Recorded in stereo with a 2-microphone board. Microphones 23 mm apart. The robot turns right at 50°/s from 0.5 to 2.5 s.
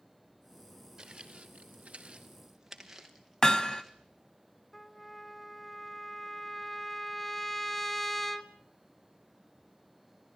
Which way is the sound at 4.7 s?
15° left (ahead or behind).